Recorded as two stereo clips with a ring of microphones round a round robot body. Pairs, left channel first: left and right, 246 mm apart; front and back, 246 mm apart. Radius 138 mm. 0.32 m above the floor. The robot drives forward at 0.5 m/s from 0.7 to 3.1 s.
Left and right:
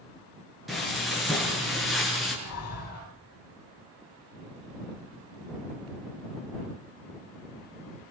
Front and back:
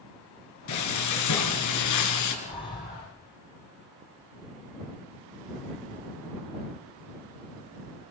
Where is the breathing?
70° left, 3.5 m; by 3.1 s 75° left, 3.5 m.